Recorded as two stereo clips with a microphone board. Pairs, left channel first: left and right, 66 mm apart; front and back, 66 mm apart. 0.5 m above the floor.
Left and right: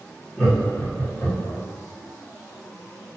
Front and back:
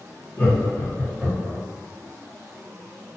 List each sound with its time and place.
0.4 s laughter: 20° left, 1.2 m; by 1.6 s 90° left, 1.5 m